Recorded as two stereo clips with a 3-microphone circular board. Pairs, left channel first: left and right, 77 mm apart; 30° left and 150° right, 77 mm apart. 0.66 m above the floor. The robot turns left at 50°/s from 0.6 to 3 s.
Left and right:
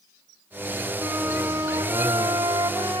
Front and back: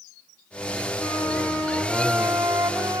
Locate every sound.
1.0 s a flute: 5° right, 3.5 m; by 3.0 s 110° right, 3.5 m